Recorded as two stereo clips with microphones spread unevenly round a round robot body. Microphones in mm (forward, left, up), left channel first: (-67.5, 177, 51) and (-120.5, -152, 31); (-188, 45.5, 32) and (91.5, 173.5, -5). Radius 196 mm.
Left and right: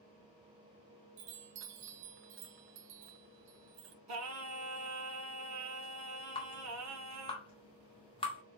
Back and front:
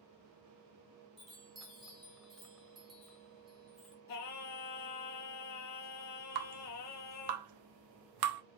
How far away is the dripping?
About 1.0 m.